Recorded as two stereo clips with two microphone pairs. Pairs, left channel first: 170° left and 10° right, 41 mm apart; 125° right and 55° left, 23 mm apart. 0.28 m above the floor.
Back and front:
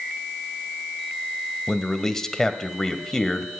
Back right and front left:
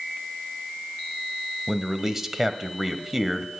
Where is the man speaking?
105° left, 1.4 m.